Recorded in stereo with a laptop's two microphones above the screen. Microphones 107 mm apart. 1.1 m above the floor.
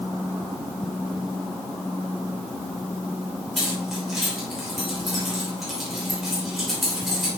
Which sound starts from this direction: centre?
Keys jangling, at 3.6 s.